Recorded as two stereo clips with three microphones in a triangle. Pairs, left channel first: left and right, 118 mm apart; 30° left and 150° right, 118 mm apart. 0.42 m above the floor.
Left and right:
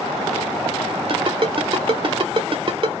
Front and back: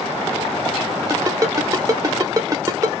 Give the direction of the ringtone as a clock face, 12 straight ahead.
3 o'clock.